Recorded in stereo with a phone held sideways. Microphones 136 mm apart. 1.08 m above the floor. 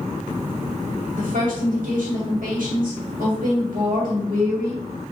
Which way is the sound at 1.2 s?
80° right.